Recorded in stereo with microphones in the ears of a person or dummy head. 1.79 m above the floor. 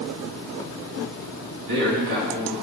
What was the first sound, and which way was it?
A man speaking, 60° right (ahead or behind).